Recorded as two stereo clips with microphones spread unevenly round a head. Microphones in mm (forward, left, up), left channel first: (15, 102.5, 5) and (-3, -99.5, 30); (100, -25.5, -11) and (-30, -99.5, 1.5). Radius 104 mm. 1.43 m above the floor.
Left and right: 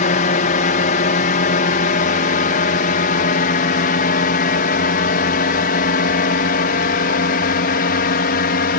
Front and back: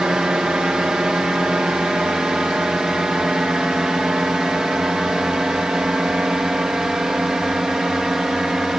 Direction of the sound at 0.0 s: 125° left.